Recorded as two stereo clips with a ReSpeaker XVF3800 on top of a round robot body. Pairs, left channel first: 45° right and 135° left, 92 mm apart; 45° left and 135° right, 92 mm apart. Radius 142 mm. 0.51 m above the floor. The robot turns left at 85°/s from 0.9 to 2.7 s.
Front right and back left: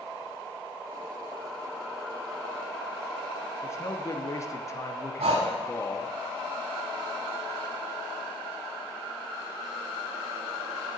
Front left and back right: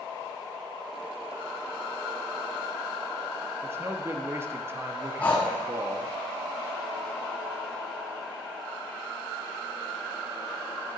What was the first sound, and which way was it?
A man speaking, 85° right.